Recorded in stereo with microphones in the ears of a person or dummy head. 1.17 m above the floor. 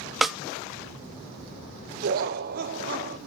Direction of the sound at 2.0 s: 50° right (ahead or behind).